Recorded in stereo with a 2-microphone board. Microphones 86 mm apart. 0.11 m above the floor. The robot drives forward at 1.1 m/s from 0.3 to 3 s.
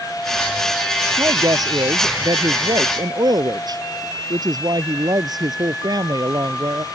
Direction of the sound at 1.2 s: 45° right (ahead or behind).